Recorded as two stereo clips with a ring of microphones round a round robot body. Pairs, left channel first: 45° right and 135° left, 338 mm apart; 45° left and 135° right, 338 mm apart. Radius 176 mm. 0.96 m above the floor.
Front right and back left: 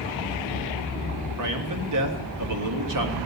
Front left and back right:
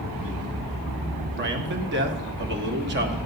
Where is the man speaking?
165° left, 1.8 m.